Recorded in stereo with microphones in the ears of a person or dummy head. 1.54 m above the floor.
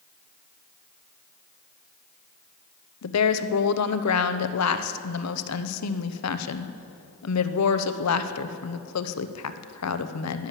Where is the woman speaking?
90° left, 0.9 m.